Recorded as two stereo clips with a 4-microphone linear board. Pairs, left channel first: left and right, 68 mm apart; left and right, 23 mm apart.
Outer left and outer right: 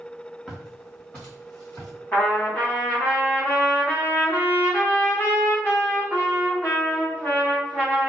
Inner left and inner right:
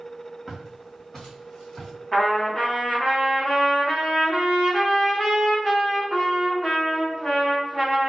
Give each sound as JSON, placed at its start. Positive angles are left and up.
{"t": 0.5, "sound": "footsteps", "side_deg": 5, "distance_m": 1.7}
{"t": 2.1, "sound": "a trumpet", "side_deg": 25, "distance_m": 1.8}